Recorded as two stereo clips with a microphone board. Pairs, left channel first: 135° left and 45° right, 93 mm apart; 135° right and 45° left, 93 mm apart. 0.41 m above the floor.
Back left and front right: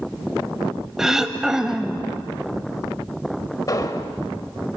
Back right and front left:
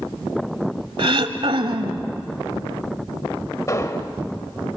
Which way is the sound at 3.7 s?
175° left.